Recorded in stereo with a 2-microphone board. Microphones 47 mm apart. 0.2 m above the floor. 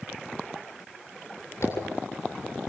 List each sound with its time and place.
1.6 s a zipper: 65° left (ahead or behind), 7.5 m